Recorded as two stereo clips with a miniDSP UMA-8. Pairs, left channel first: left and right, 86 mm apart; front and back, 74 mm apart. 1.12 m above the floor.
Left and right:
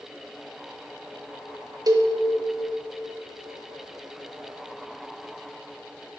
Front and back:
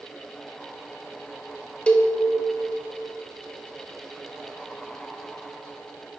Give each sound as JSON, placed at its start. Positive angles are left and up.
{"t": 1.9, "sound": "a cowbell", "azimuth_deg": -70, "distance_m": 0.7}